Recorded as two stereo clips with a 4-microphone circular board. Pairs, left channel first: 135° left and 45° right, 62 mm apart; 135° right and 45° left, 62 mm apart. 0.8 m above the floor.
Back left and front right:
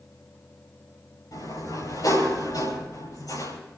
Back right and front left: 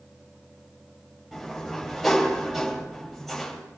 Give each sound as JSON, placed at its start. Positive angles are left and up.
{"t": 1.3, "sound": "a sliding door", "azimuth_deg": 135, "distance_m": 8.0}